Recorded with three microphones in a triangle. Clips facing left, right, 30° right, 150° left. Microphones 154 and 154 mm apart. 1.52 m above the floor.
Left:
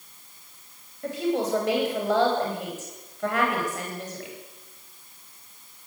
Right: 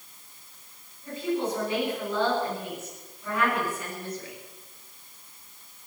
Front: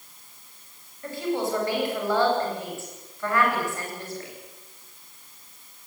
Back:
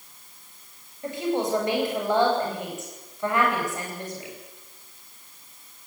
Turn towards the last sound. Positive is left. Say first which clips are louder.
# left 3 dB, back 1 dB
turn(degrees=80)